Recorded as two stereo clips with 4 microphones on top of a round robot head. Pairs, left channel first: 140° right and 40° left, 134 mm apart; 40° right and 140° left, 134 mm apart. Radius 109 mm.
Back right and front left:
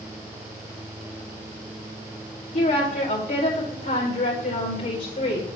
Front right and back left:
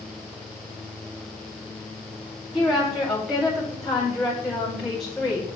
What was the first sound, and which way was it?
A woman speaking, 130° right.